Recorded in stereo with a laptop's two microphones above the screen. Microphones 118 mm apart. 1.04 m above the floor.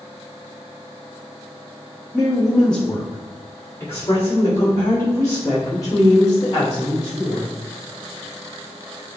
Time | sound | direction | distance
2.1 | a woman speaking | 5° right (ahead or behind) | 1.2 m